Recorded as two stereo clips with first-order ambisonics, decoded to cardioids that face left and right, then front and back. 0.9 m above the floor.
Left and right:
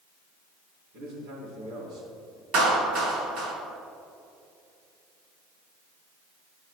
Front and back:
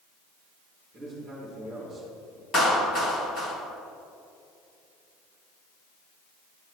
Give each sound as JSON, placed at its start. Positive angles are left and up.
{"t": 0.9, "sound": "a man speaking", "azimuth_deg": -110, "distance_m": 2.5}
{"t": 2.5, "sound": "a clap", "azimuth_deg": -60, "distance_m": 1.9}